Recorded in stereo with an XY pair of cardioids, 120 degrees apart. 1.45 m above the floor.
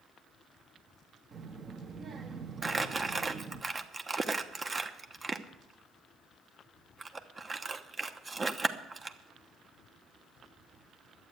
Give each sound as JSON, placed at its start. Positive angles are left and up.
{"t": 1.3, "sound": "a child speaking", "azimuth_deg": -40, "distance_m": 1.6}
{"t": 2.6, "sound": "crumpling", "azimuth_deg": -25, "distance_m": 1.0}